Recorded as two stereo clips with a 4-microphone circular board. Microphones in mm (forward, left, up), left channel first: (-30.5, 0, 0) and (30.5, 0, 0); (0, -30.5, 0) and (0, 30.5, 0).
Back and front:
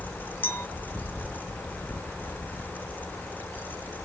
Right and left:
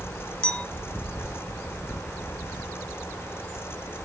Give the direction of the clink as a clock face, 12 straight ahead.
5 o'clock.